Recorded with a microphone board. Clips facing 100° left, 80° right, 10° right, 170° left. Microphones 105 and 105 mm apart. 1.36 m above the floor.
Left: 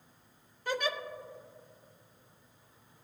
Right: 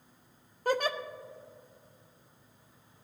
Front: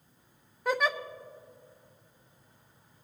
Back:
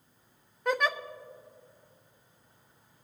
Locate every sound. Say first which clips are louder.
0.7 s a giggle: right 4 dB, even; 100° right, 0.5 m